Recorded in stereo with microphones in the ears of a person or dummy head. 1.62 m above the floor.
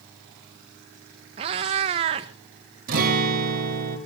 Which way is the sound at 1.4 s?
20° right (ahead or behind).